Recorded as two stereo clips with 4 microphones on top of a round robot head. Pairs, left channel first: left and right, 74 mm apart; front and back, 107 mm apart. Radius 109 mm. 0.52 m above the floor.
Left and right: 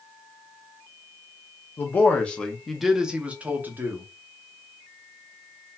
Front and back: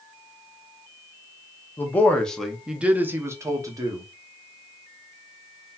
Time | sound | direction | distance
1.8 | a man speaking | 55° left | 1.1 m